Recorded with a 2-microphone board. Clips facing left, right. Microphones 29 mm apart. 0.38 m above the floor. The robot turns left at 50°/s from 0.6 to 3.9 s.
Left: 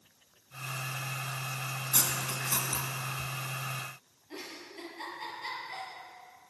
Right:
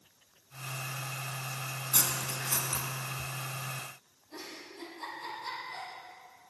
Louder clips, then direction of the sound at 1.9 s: Even; 5° left (ahead or behind).